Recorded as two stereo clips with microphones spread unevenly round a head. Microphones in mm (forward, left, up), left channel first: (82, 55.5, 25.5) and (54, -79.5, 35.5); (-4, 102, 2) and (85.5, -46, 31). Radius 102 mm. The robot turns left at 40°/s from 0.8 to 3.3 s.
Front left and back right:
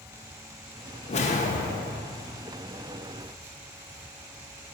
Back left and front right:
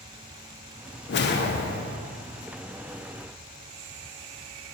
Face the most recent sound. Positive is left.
turn(degrees=35)